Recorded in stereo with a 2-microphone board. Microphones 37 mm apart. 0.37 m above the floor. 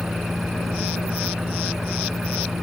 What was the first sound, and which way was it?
An engine running, centre (ahead or behind).